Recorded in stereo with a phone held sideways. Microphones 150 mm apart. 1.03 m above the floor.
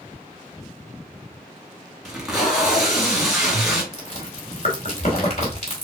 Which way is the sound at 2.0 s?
Centre (ahead or behind).